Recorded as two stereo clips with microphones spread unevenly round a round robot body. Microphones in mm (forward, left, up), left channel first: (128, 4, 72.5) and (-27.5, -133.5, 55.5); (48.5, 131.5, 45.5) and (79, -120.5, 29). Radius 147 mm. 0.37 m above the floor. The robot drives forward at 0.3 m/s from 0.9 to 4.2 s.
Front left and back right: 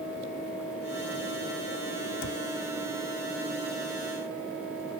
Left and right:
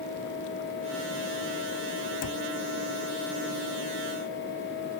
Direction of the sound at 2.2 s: 75° left.